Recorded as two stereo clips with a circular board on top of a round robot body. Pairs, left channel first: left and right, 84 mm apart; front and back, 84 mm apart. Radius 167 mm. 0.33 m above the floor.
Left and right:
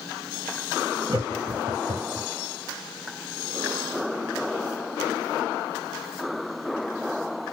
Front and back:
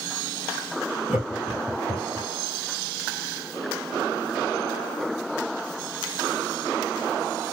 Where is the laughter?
105° right, 3 m; by 2.3 s 85° right, 2.5 m.